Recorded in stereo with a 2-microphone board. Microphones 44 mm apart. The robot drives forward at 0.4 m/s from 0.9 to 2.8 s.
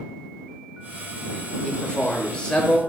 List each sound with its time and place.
1.6 s a man speaking: 20° left (ahead or behind), 0.8 m; by 2.8 s 15° left (ahead or behind), 1.0 m